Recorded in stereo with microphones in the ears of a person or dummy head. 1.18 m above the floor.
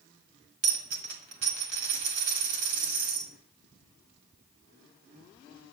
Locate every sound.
0.6 s a dropped coin: 50° right (ahead or behind), 1.4 m